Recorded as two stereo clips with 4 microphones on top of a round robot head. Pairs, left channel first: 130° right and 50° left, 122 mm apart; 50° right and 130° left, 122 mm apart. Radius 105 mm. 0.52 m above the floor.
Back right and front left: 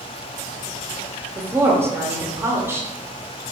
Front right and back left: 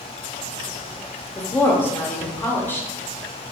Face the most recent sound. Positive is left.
turn(degrees=5)